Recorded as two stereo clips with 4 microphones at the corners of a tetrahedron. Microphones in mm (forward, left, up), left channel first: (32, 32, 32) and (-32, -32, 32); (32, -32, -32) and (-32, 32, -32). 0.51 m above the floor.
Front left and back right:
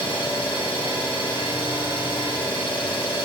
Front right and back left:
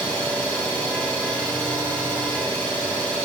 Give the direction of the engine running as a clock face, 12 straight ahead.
11 o'clock.